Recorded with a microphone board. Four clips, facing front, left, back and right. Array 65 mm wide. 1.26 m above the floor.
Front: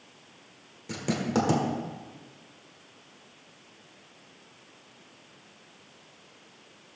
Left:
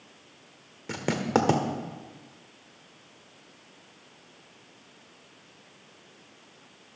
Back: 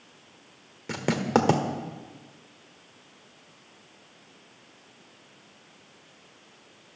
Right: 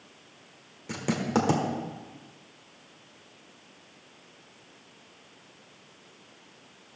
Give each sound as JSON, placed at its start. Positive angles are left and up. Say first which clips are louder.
{"t": 0.9, "sound": "writing", "louder": "left 2 dB, back 4 dB", "azimuth_deg": 150, "distance_m": 1.2}